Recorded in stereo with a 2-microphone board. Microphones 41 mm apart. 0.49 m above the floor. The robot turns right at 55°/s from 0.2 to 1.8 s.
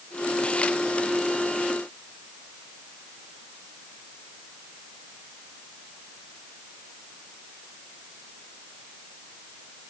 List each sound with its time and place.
Only background noise.